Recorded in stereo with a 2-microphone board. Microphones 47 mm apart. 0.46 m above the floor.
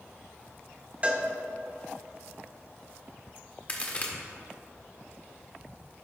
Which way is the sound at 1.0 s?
30° right (ahead or behind).